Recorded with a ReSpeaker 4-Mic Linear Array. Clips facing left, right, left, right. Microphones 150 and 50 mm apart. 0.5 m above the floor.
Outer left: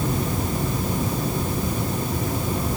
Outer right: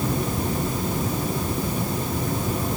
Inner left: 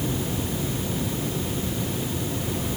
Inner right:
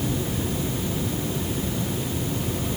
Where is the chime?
I don't hear a chime.